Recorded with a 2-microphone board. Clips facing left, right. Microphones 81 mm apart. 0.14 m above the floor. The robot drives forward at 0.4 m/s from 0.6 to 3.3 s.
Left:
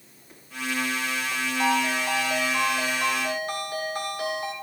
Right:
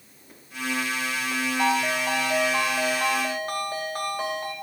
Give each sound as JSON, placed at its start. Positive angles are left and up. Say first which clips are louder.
{"t": 1.6, "sound": "a ringtone", "louder": "even", "side_deg": -55, "distance_m": 3.0}